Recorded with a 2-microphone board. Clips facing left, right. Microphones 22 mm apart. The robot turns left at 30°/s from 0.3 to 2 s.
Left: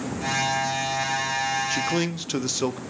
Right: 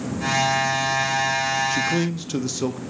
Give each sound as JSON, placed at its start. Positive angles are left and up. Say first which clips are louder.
{"t": 1.7, "sound": "a man speaking", "louder": "right 2 dB", "side_deg": 10, "distance_m": 0.5}